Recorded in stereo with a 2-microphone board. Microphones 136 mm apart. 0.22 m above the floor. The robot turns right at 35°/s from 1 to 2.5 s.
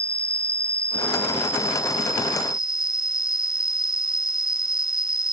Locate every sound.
0.0 s an insect: 45° left; by 5.3 s 95° left